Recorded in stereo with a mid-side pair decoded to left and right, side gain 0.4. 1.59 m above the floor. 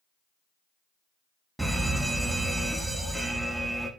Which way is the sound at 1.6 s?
5° right.